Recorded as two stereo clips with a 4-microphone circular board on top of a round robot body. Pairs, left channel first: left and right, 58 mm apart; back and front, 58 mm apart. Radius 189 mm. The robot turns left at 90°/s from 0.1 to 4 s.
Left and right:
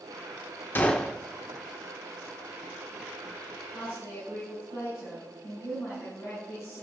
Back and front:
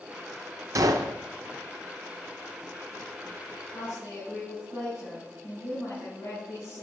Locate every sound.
0.8 s a gunshot: 35° left, 0.6 m; by 1.2 s 5° right, 0.6 m
3.7 s a woman speaking: 160° left, 8.5 m; by 6.8 s 135° left, 8.5 m